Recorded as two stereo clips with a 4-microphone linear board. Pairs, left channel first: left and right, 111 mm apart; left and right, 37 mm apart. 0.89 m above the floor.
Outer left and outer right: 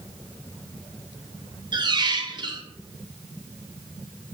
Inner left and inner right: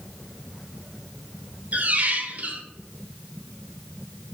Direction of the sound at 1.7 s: 40° right (ahead or behind).